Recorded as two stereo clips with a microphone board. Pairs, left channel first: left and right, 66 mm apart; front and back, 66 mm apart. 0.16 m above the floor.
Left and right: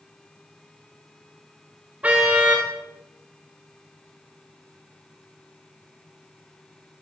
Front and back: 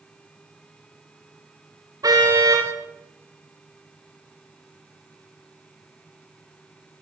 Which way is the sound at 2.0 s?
160° right.